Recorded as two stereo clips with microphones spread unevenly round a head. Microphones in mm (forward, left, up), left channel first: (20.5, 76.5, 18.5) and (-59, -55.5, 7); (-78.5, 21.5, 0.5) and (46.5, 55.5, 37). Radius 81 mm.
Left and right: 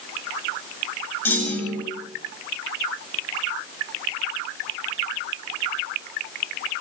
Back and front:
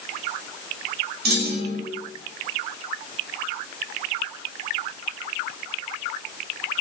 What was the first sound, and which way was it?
A clunk, 20° right.